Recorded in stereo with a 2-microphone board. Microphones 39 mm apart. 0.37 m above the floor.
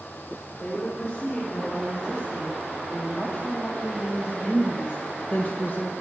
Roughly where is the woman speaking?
Left.